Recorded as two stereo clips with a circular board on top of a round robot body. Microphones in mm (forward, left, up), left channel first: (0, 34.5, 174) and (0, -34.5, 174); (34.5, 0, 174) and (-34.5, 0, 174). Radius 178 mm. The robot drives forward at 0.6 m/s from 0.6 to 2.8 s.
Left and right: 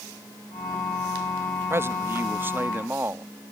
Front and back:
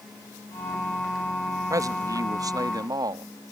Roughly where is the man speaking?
Behind right.